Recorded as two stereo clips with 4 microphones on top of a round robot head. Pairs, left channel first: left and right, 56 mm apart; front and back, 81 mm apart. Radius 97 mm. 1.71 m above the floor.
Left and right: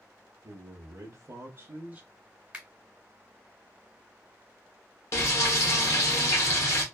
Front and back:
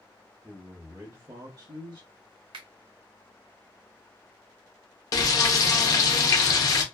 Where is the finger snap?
160° right, 1.0 m.